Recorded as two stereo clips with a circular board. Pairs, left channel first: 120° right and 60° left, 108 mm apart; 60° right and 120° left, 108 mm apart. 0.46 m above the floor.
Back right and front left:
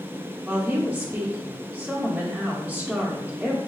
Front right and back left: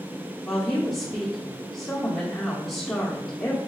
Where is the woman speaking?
30° left, 0.7 m.